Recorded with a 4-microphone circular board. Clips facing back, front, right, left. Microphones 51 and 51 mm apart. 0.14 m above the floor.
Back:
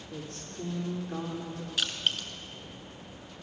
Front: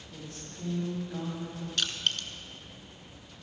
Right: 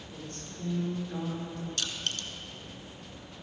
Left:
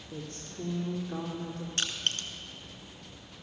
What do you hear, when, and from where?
0.1 s a woman speaking: 130° left, 5 m
1.8 s crushing: 100° left, 1.3 m